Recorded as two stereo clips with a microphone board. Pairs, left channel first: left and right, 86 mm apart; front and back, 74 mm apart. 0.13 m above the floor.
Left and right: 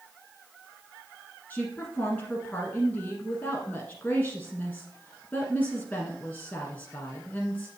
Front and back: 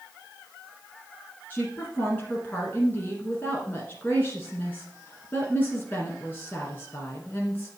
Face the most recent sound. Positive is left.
turn(degrees=35)